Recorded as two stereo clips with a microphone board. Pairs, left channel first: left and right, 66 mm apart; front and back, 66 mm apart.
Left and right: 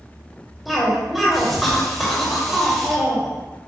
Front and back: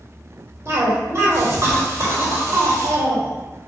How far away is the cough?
About 1.8 m.